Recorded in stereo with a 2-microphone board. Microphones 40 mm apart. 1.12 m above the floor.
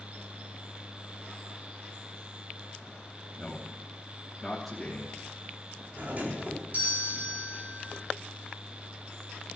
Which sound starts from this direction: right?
A doorbell, at 6.0 s.